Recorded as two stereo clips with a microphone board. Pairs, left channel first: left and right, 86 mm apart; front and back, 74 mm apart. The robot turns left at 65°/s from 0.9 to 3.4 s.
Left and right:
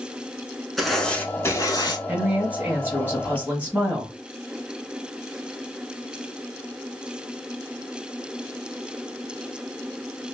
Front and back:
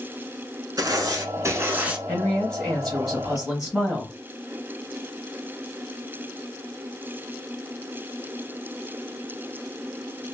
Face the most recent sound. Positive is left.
turn(degrees=-110)